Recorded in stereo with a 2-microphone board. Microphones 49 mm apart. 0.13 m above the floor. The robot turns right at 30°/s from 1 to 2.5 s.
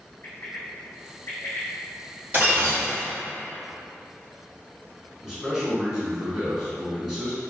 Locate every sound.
0.2 s a bird: 45° left (ahead or behind), 1.2 m; by 2.2 s 50° left (ahead or behind), 1.2 m
2.3 s breaking glass: 35° right (ahead or behind), 1.5 m; by 3.1 s 40° right (ahead or behind), 1.5 m
5.2 s a man speaking: 5° right (ahead or behind), 1.1 m